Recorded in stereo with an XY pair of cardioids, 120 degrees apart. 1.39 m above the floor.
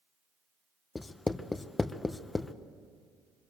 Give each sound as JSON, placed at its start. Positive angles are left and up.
{"t": 0.9, "sound": "writing", "azimuth_deg": 20, "distance_m": 0.7}